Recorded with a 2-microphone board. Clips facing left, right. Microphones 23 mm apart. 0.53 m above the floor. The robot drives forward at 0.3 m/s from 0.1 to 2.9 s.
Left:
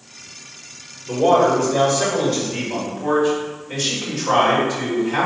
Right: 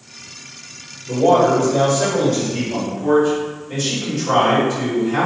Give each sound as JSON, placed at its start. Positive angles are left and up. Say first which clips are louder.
{"t": 1.1, "sound": "a man speaking", "louder": "right 1 dB", "side_deg": 45, "distance_m": 1.7}